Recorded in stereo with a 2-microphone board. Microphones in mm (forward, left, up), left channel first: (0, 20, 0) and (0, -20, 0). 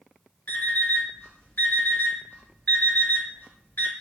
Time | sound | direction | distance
0.5 | an alarm clock | 60° left (ahead or behind) | 1.1 m